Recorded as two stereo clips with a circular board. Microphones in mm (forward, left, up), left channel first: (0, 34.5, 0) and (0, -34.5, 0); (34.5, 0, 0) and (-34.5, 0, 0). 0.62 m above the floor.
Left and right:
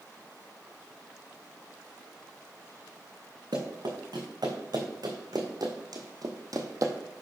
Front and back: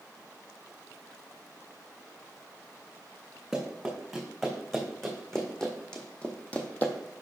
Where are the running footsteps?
90° right, 3 m; by 6.9 s 60° right, 1.2 m.